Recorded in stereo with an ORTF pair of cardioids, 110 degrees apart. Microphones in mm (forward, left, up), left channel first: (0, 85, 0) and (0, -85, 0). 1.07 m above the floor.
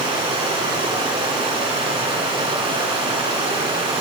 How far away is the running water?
About 5.5 m.